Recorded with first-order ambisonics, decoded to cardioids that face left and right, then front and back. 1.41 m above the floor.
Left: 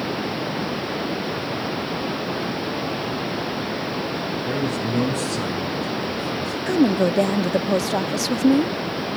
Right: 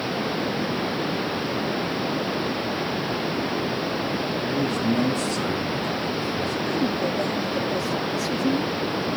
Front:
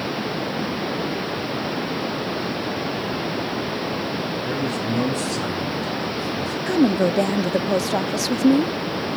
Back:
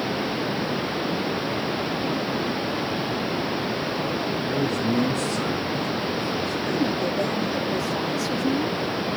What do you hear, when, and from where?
4.5 s a man speaking: 55° left, 6 m
6.7 s a woman speaking: 50° left, 0.6 m